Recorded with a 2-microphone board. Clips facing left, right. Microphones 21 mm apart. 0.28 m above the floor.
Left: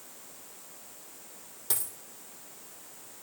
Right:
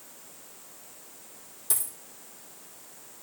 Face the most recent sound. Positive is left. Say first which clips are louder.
# right 2 dB
turn(degrees=25)  # may be behind; listen again after turning